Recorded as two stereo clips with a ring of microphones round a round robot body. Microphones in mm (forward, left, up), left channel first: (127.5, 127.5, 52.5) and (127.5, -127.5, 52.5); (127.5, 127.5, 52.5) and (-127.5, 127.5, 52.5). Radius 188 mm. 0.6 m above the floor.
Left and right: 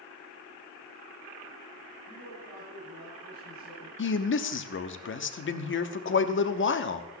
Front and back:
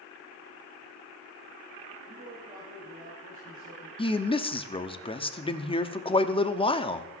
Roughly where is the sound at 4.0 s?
Ahead left.